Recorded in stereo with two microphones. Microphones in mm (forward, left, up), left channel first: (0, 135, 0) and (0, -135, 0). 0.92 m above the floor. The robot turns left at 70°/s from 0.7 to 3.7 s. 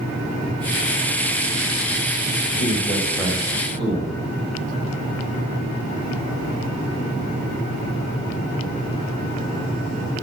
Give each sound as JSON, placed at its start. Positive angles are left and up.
{"t": 2.5, "sound": "a man speaking", "azimuth_deg": 45, "distance_m": 4.0}